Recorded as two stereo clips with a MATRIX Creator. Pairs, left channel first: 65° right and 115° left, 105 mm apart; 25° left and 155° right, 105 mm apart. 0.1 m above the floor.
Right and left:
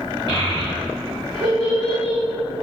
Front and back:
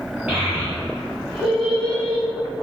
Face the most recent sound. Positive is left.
turn(degrees=80)